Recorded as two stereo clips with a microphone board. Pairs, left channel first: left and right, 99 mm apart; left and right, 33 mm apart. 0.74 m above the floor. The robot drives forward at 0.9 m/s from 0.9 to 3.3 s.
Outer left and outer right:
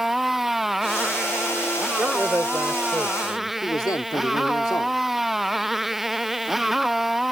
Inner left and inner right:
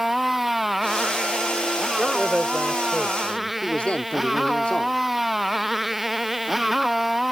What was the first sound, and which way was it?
A motorcycle, centre (ahead or behind).